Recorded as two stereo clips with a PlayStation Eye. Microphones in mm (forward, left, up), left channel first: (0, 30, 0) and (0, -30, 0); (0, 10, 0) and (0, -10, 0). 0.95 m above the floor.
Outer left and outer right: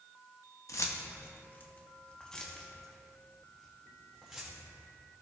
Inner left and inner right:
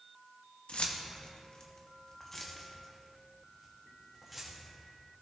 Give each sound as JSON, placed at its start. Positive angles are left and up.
{"t": 0.7, "sound": "keys jangling", "side_deg": 70, "distance_m": 0.9}